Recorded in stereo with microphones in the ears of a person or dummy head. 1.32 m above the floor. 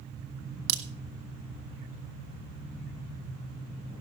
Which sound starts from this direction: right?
A crack, at 0.7 s.